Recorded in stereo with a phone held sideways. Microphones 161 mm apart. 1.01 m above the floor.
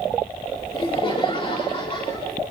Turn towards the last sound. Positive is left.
turn(degrees=35)  # may be behind; listen again after turning